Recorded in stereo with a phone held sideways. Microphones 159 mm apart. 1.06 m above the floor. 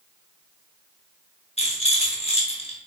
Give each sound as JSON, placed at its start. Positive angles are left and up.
{"t": 1.6, "sound": "a rattle", "side_deg": 40, "distance_m": 0.7}